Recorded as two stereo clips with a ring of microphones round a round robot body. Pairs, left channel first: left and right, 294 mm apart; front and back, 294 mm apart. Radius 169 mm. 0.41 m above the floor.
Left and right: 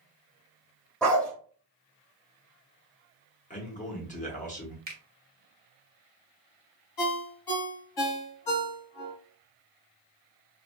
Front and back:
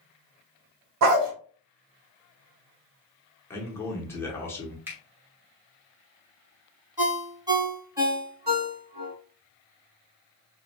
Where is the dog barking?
175° left, 0.6 m.